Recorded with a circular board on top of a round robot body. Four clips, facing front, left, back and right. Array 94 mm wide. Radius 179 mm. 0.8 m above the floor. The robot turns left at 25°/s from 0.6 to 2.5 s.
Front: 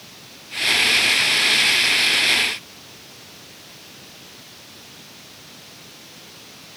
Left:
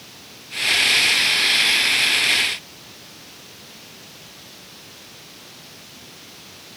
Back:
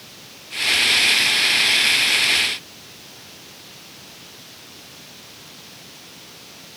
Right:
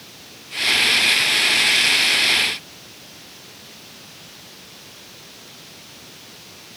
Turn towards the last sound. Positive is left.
No sound to turn to.